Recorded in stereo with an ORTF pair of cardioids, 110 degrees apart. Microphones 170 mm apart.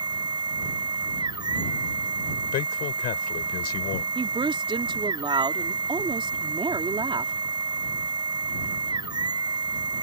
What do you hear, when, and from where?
0.0 s a machine running: 25° right
2.5 s a man speaking: 70° left
4.2 s a woman speaking: 30° right